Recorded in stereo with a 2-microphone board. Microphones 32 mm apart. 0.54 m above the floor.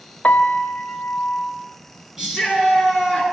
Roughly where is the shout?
Centre.